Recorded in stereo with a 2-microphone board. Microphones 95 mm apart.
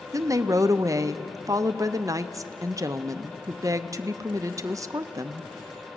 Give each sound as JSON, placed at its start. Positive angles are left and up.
{"t": 0.1, "sound": "a woman speaking", "side_deg": -35, "distance_m": 0.7}